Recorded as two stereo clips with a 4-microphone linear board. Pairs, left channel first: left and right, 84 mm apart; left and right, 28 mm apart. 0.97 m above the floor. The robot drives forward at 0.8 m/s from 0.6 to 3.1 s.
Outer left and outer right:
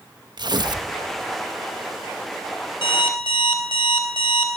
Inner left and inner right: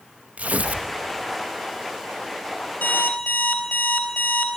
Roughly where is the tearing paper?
Right.